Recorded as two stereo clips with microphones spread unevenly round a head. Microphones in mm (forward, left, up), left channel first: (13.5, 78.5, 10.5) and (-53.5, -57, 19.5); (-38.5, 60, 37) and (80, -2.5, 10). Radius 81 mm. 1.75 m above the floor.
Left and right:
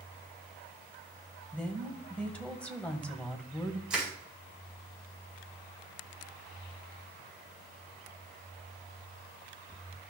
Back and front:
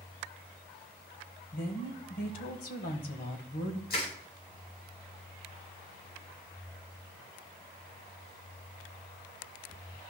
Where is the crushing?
160° left, 5 m.